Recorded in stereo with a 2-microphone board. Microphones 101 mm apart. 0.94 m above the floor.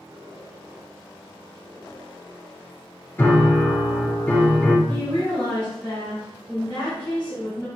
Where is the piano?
20° left (ahead or behind), 0.8 m.